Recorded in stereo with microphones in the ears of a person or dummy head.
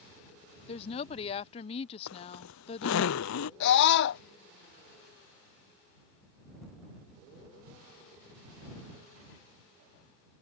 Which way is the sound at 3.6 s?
60° left (ahead or behind).